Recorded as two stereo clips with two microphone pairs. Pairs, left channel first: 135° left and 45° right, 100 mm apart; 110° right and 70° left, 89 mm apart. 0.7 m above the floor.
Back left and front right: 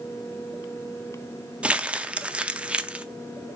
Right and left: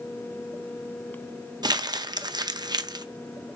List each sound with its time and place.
1.6 s crumpling: 30° left, 0.6 m